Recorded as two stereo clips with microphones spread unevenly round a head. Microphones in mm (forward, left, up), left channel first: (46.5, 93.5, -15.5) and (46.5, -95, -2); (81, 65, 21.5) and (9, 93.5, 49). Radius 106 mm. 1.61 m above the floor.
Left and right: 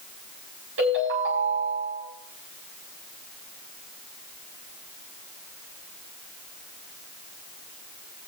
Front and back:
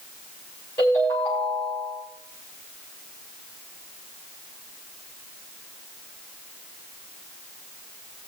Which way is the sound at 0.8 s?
80° right.